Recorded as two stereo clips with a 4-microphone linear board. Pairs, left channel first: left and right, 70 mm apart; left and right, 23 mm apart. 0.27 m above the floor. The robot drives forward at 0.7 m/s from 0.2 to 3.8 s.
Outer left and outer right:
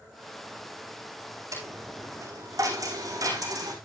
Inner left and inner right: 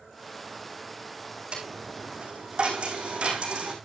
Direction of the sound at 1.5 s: 45° right (ahead or behind).